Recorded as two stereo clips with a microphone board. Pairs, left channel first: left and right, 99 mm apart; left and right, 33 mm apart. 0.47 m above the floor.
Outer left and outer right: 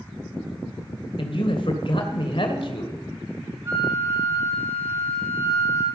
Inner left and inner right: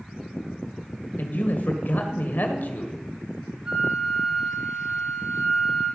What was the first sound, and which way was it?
A man speaking, 60° left (ahead or behind).